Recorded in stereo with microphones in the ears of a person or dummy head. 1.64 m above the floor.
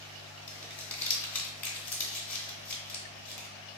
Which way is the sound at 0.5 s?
5° left (ahead or behind).